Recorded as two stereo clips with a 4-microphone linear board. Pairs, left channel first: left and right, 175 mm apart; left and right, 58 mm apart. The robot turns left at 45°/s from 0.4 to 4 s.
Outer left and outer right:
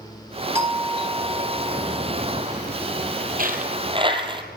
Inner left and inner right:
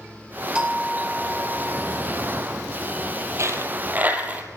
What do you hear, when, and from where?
0.6 s a doorbell: 20° right, 2 m; by 2.0 s 85° right, 2 m
3.4 s a dropped coin: 55° right (ahead or behind), 2.5 m; by 4.4 s 30° right (ahead or behind), 2.5 m